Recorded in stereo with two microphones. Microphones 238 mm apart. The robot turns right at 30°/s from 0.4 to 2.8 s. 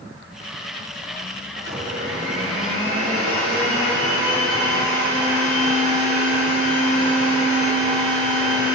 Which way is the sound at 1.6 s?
110° right.